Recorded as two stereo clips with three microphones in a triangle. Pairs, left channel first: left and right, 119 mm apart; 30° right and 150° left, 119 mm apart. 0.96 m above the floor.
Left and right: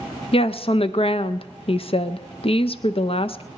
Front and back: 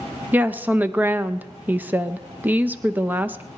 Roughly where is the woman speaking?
Left.